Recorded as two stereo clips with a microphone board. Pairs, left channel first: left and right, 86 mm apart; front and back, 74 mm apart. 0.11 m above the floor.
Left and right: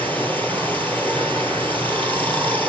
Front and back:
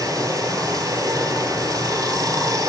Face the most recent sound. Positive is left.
turn(degrees=155)